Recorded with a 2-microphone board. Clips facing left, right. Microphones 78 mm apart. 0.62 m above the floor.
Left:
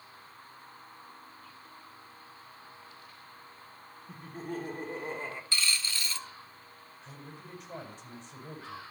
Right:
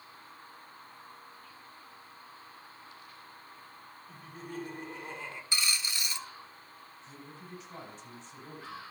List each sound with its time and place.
4.1 s laughter: 45° left (ahead or behind), 1.3 m
5.5 s a dropped coin: 20° right (ahead or behind), 0.6 m
7.0 s a man speaking: 55° left (ahead or behind), 4.5 m